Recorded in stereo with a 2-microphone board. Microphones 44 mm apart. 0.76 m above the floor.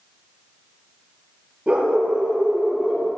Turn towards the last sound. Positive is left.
turn(degrees=-25)  # may be behind; listen again after turning